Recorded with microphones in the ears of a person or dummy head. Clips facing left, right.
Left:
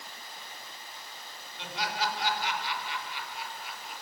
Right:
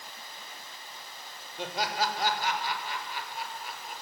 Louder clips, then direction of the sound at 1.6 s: Right 3 dB; 45° right (ahead or behind).